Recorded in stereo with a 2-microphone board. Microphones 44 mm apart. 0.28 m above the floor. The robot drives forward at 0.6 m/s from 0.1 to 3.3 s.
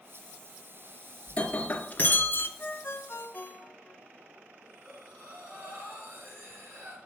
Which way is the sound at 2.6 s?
55° left (ahead or behind).